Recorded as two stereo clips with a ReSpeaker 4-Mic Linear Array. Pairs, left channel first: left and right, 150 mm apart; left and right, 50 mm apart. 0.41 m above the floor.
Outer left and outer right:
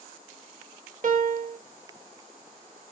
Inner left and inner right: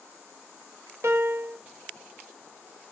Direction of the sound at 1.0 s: 65° right (ahead or behind).